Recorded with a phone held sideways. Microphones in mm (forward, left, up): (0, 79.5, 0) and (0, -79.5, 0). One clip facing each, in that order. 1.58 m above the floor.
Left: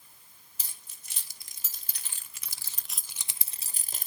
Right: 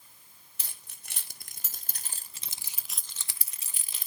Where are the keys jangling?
70° right (ahead or behind), 1.4 m; by 4.1 s 45° left (ahead or behind), 0.8 m.